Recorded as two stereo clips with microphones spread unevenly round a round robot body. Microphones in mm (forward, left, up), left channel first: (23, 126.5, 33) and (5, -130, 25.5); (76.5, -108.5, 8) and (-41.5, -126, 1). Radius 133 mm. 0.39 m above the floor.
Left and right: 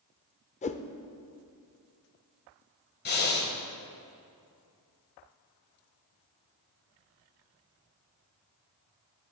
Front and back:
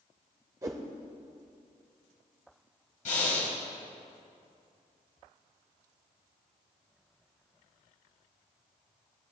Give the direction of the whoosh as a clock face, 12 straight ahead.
7 o'clock.